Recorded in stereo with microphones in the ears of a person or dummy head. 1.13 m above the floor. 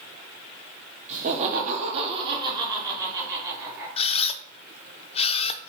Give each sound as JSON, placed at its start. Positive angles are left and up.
{"t": 1.1, "sound": "laughter", "side_deg": -30, "distance_m": 0.9}
{"t": 4.0, "sound": "a camera shutter", "side_deg": 30, "distance_m": 0.5}